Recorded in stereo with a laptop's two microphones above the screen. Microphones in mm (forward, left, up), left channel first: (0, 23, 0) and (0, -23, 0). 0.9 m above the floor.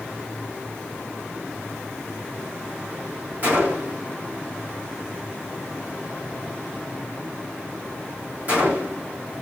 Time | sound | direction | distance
3.4 | a gunshot | 35° right (ahead or behind) | 1.8 m